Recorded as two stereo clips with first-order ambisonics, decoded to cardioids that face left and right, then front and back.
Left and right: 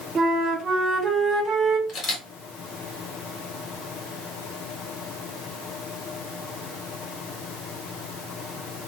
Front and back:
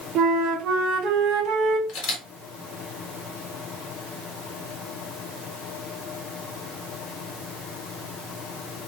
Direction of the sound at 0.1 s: 150° right.